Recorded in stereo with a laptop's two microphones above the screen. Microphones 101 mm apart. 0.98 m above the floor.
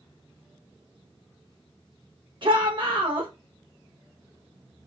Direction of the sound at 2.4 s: 55° right (ahead or behind).